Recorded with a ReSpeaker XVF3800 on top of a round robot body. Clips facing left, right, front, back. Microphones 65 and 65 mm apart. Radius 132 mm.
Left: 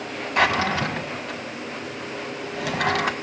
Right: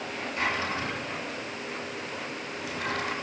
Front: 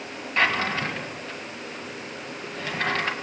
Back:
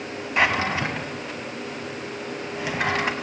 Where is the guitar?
No guitar in this recording.